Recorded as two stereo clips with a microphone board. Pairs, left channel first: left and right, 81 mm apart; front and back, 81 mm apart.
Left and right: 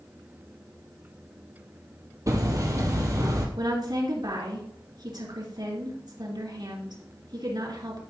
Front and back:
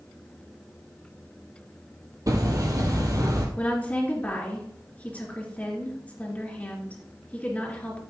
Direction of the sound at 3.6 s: 70° right.